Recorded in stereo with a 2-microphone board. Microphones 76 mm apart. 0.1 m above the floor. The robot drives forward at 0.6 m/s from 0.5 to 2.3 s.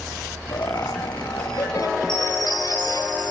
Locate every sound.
0.5 s laughter: 55° left (ahead or behind), 2.5 m
2.1 s a chime: 80° left, 6 m